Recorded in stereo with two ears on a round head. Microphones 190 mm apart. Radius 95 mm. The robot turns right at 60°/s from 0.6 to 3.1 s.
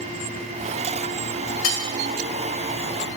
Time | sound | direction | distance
1.6 | cutlery clinking | 70° left (ahead or behind) | 1.5 m